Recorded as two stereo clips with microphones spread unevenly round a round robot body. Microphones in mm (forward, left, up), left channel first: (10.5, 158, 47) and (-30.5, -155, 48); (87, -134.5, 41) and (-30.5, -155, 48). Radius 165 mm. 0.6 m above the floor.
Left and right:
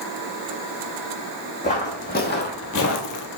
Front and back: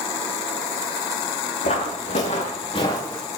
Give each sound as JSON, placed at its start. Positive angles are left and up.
{"t": 1.6, "sound": "footsteps", "azimuth_deg": 15, "distance_m": 1.6}